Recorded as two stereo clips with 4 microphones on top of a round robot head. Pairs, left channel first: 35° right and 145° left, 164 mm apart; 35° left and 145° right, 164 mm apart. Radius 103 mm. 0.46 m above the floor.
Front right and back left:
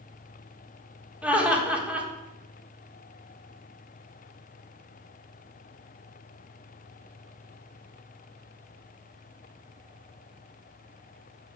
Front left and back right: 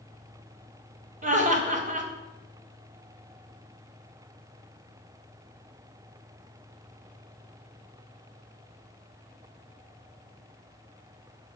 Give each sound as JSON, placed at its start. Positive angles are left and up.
{"t": 1.2, "sound": "laughter", "azimuth_deg": -135, "distance_m": 1.6}